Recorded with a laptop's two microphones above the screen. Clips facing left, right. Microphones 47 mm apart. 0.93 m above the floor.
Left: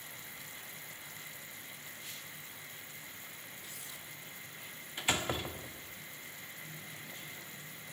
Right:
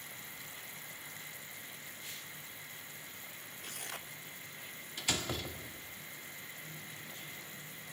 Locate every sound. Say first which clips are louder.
3.6 s tearing paper: right 3 dB; 70° right (ahead or behind), 0.9 m
5.0 s a door slam: left 3 dB; 30° left (ahead or behind), 1.3 m